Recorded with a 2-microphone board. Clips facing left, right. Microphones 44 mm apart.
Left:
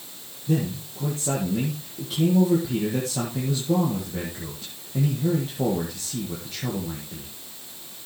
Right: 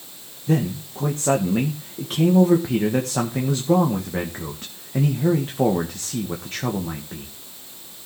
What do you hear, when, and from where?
0.5 s a man speaking: 50° right (ahead or behind), 1.8 m